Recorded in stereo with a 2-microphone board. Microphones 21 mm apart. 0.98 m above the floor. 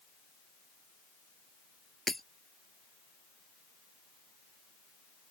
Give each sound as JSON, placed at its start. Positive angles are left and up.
{"t": 2.1, "sound": "breaking glass", "side_deg": 10}